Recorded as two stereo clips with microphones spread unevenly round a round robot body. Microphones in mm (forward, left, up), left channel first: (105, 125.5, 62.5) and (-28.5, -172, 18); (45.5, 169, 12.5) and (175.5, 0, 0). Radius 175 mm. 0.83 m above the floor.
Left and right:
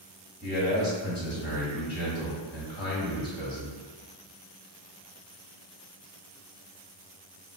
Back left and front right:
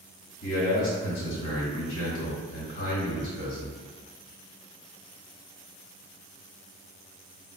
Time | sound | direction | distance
0.4 | a man speaking | 145° left | 1.3 m